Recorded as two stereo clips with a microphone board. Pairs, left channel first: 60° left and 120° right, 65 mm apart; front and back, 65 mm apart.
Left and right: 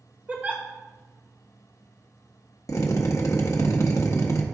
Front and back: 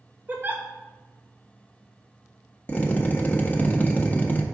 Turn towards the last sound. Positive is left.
turn(degrees=55)